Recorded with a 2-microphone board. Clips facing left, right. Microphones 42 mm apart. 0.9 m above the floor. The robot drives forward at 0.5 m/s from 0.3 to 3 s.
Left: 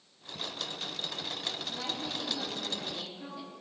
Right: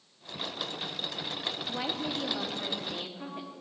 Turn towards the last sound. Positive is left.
turn(degrees=-40)  # may be behind; listen again after turning